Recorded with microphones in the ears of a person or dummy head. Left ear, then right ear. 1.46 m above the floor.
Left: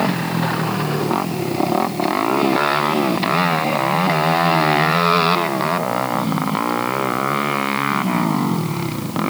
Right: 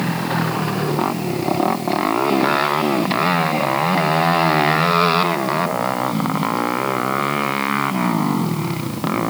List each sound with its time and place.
Only background noise.